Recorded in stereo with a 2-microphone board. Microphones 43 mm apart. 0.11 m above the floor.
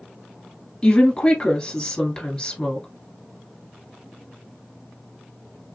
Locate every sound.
0.8 s a woman speaking: 20° left (ahead or behind), 1.6 m